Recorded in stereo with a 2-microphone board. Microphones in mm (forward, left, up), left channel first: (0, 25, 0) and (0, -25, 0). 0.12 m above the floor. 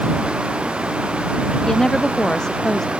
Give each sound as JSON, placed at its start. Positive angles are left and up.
{"t": 1.7, "sound": "a woman speaking", "side_deg": 10}